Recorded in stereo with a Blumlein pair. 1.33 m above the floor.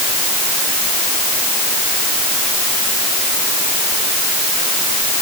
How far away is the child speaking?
I don't hear a child speaking.